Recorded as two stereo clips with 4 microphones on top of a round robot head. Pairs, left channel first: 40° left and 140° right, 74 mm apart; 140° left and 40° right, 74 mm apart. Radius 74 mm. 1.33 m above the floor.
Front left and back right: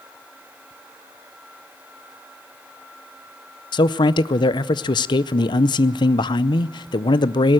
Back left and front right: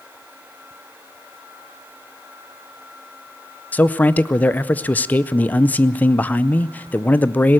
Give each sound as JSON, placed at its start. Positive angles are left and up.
{"t": 3.7, "sound": "a man speaking", "azimuth_deg": 70, "distance_m": 0.6}